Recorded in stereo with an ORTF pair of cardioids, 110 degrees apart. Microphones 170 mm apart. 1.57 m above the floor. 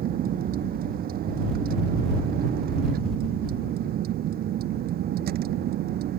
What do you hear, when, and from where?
0.0 s a vehicle: 60° right; by 6.2 s 65° right